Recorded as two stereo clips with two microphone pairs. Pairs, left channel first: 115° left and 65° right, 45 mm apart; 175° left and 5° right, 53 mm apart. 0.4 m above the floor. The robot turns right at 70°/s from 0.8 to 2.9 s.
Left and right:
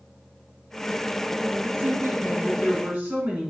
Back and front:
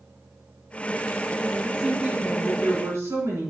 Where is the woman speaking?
95° right, 3.5 m; by 3.5 s 5° right, 3.5 m.